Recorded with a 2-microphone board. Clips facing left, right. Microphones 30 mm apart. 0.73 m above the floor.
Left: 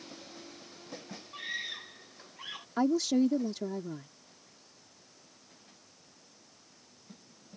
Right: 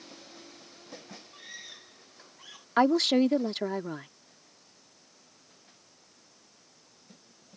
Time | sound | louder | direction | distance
1.3 | a scream | left 10 dB | 35° left (ahead or behind) | ?
2.8 | a woman speaking | right 4 dB | 65° right (ahead or behind) | ?